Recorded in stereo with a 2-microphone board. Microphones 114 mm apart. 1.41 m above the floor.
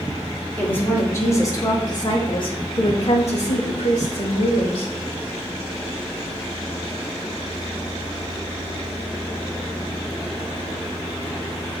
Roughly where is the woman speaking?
Centre.